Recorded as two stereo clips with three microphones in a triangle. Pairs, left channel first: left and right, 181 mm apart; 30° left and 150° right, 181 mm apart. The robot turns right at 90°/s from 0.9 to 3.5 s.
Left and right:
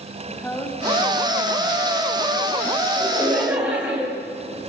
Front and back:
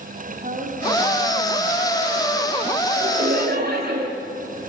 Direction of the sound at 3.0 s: 140° left.